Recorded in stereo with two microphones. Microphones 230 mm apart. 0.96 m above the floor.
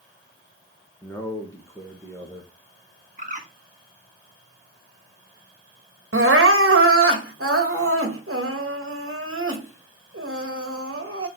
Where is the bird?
35° right (ahead or behind), 1.4 m.